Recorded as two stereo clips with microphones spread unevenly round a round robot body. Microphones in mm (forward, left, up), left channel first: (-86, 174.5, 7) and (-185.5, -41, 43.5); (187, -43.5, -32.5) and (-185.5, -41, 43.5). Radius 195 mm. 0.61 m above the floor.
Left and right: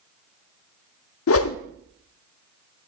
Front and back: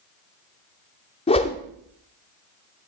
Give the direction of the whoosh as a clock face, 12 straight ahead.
10 o'clock.